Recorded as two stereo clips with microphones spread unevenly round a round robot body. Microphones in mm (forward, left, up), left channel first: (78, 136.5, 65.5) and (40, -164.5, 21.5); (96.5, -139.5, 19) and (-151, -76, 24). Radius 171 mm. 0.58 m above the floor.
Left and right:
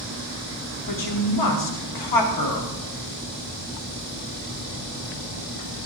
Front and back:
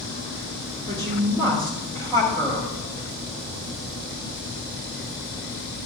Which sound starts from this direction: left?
A woman speaking, at 0.9 s.